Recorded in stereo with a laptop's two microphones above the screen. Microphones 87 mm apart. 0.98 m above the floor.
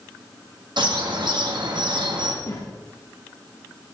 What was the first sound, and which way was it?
A bird, 65° right (ahead or behind).